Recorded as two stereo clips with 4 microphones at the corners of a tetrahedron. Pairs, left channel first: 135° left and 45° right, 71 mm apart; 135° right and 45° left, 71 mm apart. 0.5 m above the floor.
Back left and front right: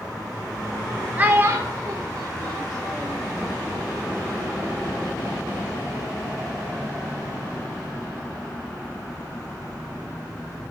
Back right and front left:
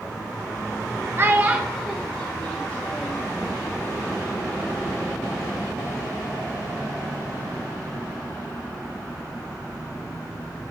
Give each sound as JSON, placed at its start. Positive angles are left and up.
{"t": 1.2, "sound": "a child speaking", "azimuth_deg": 10, "distance_m": 0.5}